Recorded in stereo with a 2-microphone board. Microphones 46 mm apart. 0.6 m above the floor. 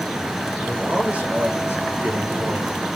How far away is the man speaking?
About 2.5 m.